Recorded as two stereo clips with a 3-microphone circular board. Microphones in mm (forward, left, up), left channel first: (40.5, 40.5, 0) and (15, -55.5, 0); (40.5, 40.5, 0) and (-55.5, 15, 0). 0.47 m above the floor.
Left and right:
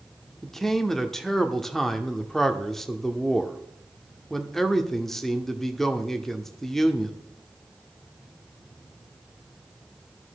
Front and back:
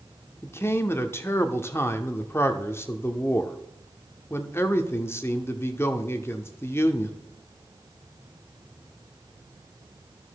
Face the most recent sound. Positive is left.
turn(degrees=-10)